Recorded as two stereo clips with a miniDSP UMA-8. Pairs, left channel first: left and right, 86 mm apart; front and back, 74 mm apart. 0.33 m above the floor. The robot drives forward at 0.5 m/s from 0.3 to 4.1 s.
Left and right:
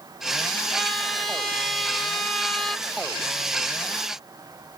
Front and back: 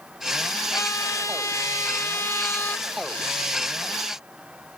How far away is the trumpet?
About 2.5 m.